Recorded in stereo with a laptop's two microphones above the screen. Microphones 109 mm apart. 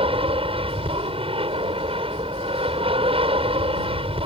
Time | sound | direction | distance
0.0 | an aircraft | 60° right (ahead or behind) | ?